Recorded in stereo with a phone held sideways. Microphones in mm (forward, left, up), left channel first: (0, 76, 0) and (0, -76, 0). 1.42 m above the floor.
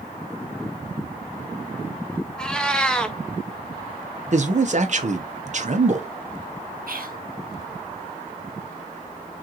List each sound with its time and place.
2.4 s a cat meowing: 5° left (ahead or behind), 0.6 m
4.3 s a man speaking: 50° right (ahead or behind), 0.9 m
6.9 s whispering: 70° right (ahead or behind), 1.0 m